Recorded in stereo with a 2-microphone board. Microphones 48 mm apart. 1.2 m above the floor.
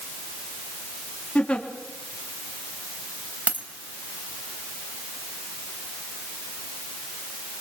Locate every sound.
1.4 s a giggle: 25° left (ahead or behind), 3.5 m
3.5 s a dropped coin: 30° right (ahead or behind), 2.5 m